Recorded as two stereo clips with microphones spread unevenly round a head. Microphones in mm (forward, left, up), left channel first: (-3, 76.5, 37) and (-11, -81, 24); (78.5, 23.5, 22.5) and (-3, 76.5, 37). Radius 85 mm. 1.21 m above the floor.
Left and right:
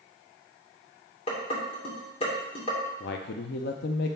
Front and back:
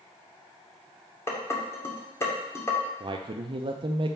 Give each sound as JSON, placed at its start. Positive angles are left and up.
{"t": 1.3, "sound": "dishes clattering", "azimuth_deg": 30, "distance_m": 2.5}
{"t": 3.0, "sound": "a man speaking", "azimuth_deg": 105, "distance_m": 0.6}